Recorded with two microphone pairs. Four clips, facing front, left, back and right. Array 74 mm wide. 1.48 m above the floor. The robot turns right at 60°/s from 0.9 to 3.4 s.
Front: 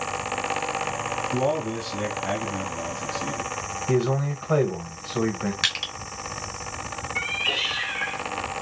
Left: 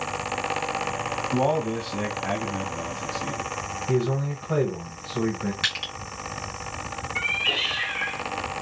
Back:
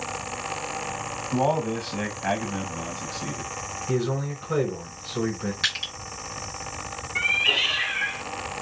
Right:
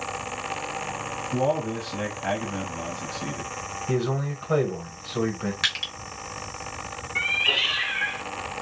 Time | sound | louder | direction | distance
1.3 | a man speaking | left 1 dB, back 3 dB | 145° left | 1.4 m
3.9 | a man speaking | left 1 dB, front 3 dB | 20° right | 1.1 m
5.6 | crushing | even, even | 10° right | 1.6 m
7.2 | a cat meowing | right 2 dB, back 5 dB | 110° right | 0.7 m